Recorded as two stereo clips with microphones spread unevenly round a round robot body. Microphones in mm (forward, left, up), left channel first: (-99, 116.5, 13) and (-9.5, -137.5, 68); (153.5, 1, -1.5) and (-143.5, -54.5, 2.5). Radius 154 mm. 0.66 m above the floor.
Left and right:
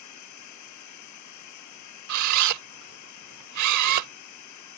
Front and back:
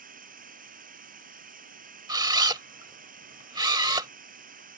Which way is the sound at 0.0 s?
125° left.